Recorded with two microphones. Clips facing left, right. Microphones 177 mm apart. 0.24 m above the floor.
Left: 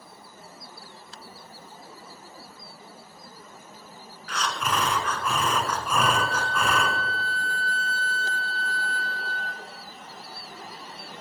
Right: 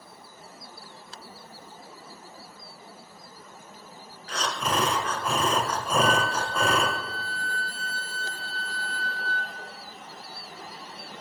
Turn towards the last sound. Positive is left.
turn(degrees=-5)  # may be behind; listen again after turning